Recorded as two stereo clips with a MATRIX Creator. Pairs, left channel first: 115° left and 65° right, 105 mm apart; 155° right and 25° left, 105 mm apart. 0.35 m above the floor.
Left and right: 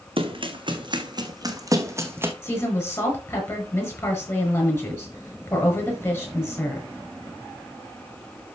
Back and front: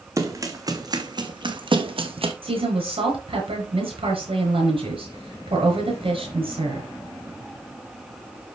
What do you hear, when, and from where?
0.2 s running footsteps: 40° right, 1.7 m; by 2.3 s straight ahead, 1.4 m
2.4 s a woman speaking: 50° left, 5 m